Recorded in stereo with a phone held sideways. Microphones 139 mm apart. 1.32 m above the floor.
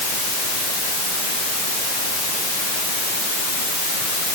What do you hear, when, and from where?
Only background noise.